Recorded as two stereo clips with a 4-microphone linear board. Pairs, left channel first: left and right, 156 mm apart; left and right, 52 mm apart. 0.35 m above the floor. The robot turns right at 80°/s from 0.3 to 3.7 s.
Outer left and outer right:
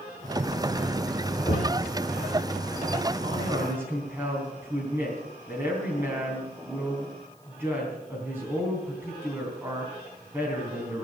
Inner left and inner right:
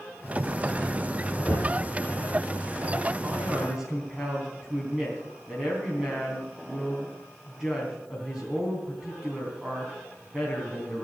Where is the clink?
I don't hear a clink.